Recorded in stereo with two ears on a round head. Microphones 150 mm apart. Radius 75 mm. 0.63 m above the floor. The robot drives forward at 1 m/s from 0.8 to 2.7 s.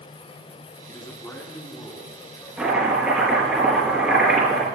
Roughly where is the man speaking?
Left.